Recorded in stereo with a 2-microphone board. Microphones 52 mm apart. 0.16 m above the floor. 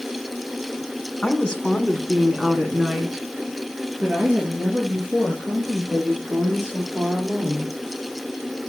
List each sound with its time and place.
1.2 s a woman speaking: 20° left (ahead or behind), 1.5 m; by 7.7 s 30° right (ahead or behind), 6 m